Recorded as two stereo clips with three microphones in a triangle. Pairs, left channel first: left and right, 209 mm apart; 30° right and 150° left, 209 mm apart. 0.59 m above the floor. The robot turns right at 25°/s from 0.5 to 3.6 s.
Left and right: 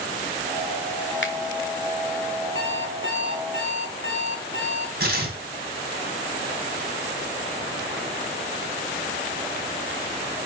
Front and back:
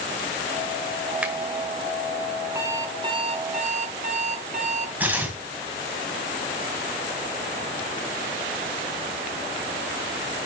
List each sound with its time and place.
1.2 s a finger snap: 65° left, 1.5 m; by 1.4 s 70° left, 1.5 m
2.5 s an alarm clock: 75° left, 2 m; by 4.9 s 100° left, 2 m
5.0 s tearing paper: 130° right, 2 m